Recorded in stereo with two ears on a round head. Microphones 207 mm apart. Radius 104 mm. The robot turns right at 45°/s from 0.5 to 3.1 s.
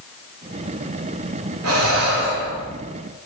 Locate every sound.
1.6 s breathing: 80° right, 2.5 m; by 2.8 s 30° right, 2.5 m